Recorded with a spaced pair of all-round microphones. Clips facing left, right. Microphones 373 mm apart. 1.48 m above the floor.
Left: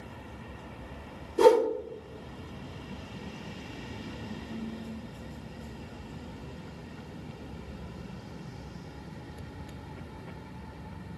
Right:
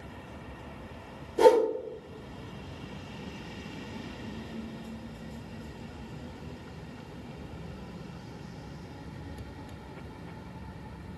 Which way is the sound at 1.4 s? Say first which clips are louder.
Even; 15° left (ahead or behind).